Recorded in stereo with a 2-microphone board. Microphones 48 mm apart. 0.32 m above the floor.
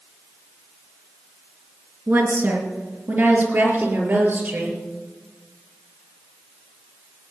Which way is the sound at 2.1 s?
55° right (ahead or behind).